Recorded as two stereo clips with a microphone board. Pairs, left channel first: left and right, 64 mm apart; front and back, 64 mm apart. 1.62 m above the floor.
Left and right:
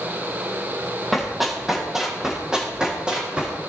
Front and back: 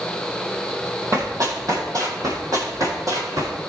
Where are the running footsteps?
Straight behind, 2.5 m; by 3.5 s 160° right, 4 m.